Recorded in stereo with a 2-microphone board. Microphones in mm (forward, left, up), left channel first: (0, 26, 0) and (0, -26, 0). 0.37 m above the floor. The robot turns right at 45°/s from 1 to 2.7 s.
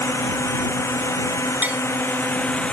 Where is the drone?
75° left (ahead or behind); by 2.7 s 25° left (ahead or behind).